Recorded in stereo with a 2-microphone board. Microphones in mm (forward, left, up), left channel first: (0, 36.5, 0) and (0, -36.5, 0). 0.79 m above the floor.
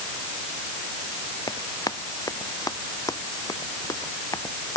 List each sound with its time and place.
1.5 s running footsteps: 60° left (ahead or behind); by 4.8 s 50° left (ahead or behind)